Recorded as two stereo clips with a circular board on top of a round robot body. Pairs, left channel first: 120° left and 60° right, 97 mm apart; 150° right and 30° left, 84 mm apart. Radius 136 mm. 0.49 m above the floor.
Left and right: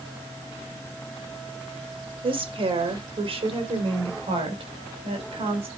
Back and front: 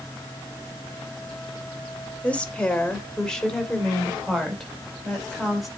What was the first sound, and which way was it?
A woman speaking, 75° right.